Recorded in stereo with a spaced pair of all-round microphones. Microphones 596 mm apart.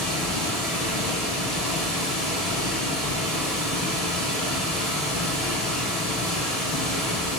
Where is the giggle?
No giggle in this recording.